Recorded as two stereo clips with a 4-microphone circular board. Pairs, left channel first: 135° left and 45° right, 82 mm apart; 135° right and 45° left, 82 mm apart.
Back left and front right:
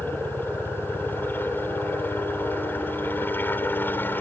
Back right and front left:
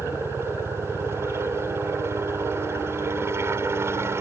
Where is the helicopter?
85° left.